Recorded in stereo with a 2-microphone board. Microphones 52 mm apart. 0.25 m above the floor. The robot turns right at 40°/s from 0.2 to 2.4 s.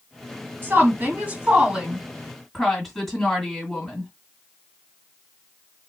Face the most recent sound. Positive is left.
turn(degrees=0)